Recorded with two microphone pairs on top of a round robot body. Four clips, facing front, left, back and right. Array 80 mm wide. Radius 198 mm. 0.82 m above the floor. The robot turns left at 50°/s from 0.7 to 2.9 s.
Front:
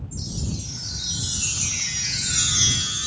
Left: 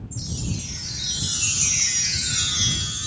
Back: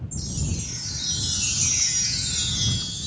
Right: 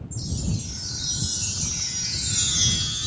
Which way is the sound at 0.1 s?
125° left.